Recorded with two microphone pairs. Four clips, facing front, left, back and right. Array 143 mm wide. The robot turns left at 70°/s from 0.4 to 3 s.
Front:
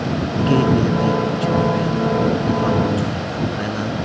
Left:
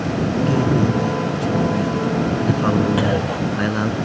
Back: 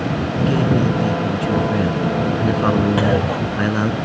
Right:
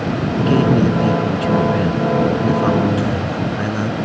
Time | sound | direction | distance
0.4 | a man speaking | 35° right | ?
3.0 | a clunk | 155° left | ?